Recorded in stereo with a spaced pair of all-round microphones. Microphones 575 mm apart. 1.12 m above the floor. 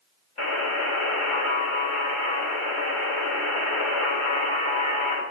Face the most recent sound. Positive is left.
turn(degrees=55)  # may be behind; listen again after turning